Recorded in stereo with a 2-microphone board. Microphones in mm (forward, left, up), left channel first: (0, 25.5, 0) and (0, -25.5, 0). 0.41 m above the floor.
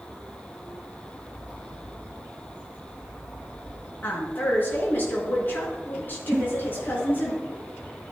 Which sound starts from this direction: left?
A woman speaking, at 4.0 s.